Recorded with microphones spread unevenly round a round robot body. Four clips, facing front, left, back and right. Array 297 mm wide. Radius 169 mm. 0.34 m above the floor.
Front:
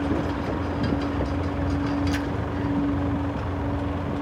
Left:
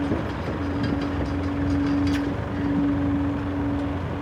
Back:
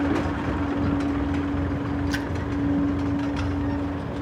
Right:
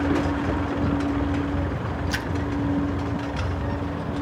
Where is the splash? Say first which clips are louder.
Left 5 dB, front 1 dB; 105° right, 0.8 m.